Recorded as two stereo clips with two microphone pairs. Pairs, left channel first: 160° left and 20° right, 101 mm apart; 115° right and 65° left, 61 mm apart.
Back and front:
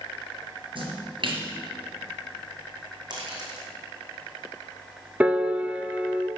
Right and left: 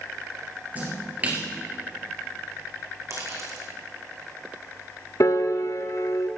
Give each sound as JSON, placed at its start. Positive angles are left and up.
{"t": 0.8, "sound": "a splash", "azimuth_deg": 5, "distance_m": 3.5}
{"t": 3.1, "sound": "a dropped coin", "azimuth_deg": 25, "distance_m": 3.0}
{"t": 5.2, "sound": "a piano", "azimuth_deg": -95, "distance_m": 0.6}